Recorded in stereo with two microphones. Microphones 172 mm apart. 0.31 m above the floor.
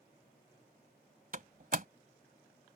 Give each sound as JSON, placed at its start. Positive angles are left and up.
{"t": 1.3, "sound": "a door slam", "side_deg": -55}